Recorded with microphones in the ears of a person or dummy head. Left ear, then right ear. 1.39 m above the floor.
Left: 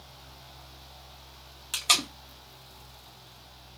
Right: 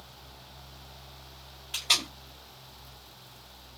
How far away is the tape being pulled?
About 0.9 m.